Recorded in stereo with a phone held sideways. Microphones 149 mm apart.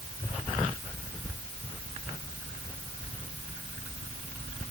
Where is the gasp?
No gasp in this recording.